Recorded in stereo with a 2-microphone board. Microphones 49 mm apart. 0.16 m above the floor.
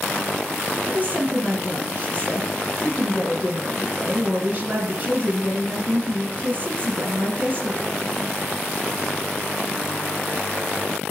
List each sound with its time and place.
0.9 s a woman speaking: 35° right (ahead or behind), 1.8 m